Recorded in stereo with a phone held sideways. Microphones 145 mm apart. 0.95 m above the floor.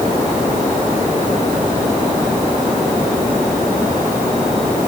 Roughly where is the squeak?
No squeak in this recording.